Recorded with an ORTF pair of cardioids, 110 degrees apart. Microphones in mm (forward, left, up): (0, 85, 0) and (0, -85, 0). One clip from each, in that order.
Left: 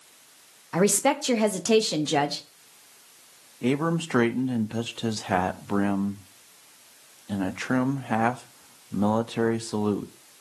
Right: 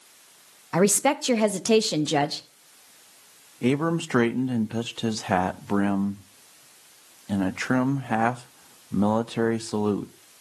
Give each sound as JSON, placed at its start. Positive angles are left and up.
{"t": 0.7, "sound": "a woman speaking", "azimuth_deg": -15, "distance_m": 0.9}
{"t": 3.6, "sound": "a man speaking", "azimuth_deg": -15, "distance_m": 0.7}